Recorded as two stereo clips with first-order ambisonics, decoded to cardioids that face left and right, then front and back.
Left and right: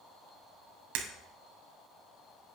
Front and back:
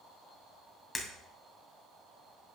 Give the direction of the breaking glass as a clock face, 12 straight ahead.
3 o'clock.